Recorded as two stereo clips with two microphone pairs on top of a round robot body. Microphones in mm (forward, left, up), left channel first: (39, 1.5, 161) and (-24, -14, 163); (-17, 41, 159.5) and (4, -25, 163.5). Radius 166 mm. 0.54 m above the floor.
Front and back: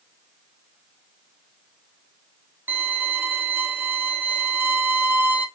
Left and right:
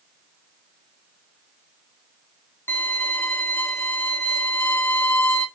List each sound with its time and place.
2.7 s a violin: 150° left, 0.9 m